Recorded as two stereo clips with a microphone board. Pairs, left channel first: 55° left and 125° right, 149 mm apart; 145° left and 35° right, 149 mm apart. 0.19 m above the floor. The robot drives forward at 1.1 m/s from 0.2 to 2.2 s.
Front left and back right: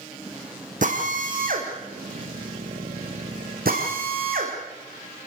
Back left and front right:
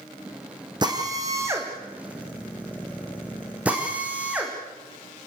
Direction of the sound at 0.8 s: 95° right.